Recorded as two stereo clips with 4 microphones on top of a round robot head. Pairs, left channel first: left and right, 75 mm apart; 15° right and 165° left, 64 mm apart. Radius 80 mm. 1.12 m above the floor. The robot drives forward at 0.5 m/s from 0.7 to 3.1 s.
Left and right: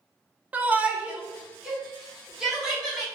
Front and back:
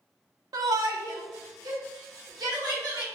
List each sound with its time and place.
0.5 s a shout: 160° right, 0.6 m; by 3.0 s 175° right, 1.7 m